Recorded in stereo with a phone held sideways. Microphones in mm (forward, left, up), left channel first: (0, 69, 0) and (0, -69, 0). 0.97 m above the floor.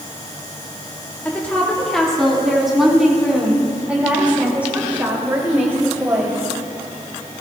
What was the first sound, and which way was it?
A woman speaking, 10° left (ahead or behind).